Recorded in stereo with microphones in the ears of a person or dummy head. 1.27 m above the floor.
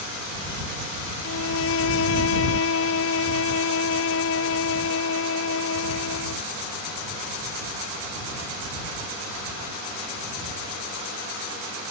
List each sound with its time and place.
1.2 s a violin: 75° left (ahead or behind)